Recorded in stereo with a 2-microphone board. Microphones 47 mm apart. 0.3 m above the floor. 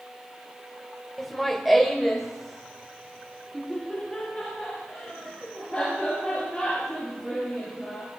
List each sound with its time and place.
1.2 s laughter: 5° left (ahead or behind), 1.3 m; by 8.1 s centre (ahead or behind), 9.5 m